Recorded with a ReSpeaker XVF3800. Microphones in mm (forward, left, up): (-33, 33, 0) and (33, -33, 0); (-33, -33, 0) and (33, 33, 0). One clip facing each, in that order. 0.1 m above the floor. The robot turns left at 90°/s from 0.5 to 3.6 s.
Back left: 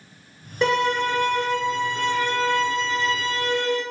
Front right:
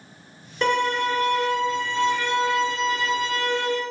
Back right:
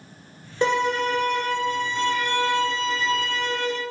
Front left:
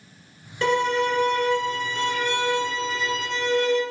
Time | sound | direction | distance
0.6 | a violin | 150° right | 1.0 m